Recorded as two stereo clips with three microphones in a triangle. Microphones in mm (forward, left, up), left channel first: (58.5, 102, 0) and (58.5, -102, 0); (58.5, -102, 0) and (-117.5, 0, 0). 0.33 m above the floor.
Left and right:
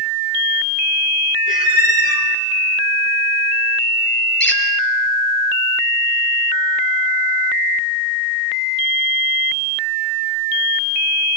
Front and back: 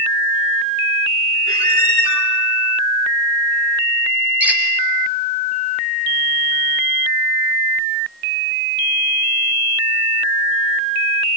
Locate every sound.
1.5 s a squeak: 45° left, 4.5 m
4.4 s a squeak: 65° left, 3.5 m